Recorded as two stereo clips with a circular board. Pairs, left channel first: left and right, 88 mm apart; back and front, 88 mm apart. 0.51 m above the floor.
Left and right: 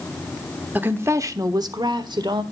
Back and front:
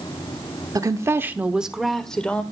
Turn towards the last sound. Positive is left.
turn(degrees=-105)